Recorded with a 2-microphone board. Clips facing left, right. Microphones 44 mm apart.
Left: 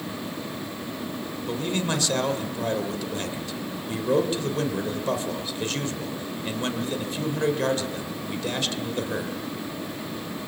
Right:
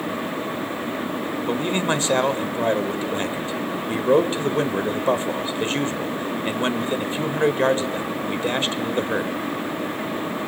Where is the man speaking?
30° right (ahead or behind), 1.5 m.